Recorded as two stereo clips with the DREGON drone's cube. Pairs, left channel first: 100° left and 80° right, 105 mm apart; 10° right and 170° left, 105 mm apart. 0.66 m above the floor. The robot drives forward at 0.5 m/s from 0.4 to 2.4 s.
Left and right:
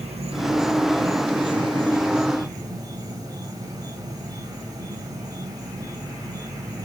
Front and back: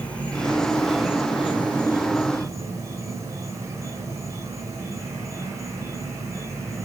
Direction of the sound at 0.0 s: 90° right.